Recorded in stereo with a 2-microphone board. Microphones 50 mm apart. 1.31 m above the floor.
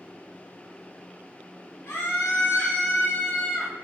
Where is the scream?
60° left (ahead or behind), 2 m; by 3.7 s 40° left (ahead or behind), 3 m.